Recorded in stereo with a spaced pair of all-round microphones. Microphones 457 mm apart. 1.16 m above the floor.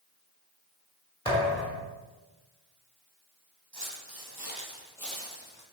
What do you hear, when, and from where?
1.2 s a thud: 10° left (ahead or behind), 2 m
3.7 s footsteps: 55° right (ahead or behind), 2 m; by 5.6 s 25° left (ahead or behind), 1.6 m